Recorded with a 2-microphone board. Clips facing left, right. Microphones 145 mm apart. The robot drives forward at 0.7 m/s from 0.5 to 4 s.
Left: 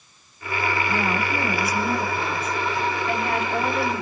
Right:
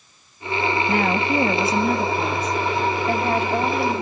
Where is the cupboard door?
No cupboard door in this recording.